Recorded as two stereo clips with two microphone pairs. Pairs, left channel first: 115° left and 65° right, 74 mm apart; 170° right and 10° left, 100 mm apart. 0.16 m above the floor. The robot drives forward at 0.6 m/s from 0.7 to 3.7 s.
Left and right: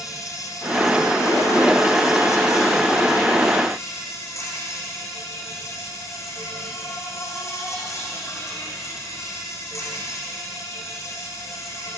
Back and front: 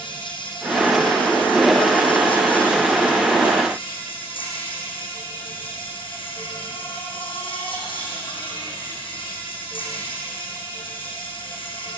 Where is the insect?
160° left, 6 m; by 12.0 s 165° left, 7.5 m.